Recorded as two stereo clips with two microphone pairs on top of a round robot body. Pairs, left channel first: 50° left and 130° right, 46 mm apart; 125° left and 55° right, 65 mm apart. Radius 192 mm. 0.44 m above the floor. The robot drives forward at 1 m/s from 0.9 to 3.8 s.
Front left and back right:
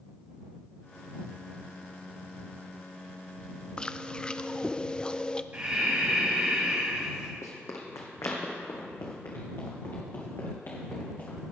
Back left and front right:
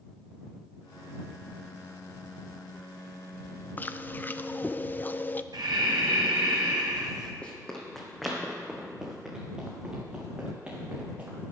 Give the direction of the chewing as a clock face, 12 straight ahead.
9 o'clock.